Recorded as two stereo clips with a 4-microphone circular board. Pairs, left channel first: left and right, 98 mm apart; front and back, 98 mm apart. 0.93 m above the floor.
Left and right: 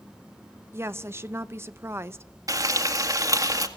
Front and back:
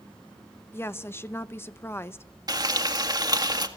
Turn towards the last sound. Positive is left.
turn(degrees=-135)